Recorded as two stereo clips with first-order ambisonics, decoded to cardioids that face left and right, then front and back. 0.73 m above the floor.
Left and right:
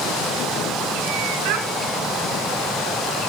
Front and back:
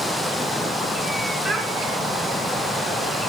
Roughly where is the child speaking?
Right.